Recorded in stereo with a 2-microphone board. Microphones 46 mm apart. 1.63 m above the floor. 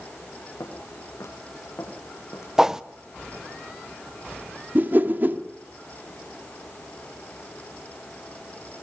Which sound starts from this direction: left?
Footsteps, at 0.6 s.